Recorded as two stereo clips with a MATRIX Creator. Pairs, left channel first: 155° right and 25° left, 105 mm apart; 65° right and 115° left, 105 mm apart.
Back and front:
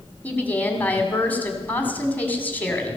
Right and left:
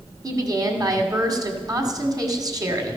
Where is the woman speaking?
140° left, 1.8 m.